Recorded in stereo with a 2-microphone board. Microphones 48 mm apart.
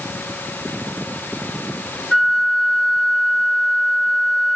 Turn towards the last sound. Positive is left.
turn(degrees=0)  # may be behind; listen again after turning